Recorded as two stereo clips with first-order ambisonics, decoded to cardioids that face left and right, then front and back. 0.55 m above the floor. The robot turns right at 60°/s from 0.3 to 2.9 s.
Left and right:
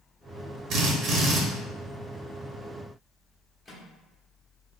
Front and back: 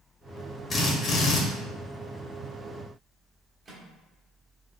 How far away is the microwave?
About 0.7 m.